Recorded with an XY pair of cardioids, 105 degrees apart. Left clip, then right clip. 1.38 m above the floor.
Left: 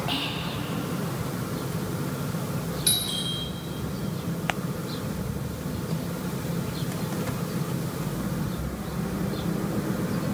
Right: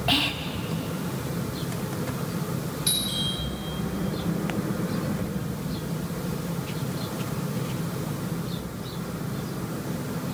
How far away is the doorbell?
About 7.5 m.